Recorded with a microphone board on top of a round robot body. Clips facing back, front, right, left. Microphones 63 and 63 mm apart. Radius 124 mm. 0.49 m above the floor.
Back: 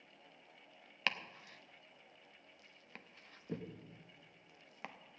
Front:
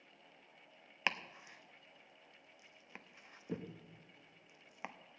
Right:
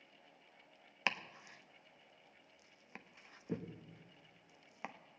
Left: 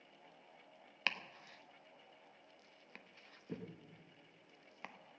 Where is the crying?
No crying in this recording.